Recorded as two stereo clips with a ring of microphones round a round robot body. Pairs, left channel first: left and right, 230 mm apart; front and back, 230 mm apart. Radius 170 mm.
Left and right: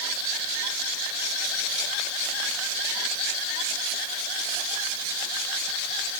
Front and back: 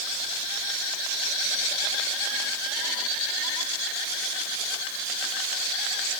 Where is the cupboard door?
I don't hear a cupboard door.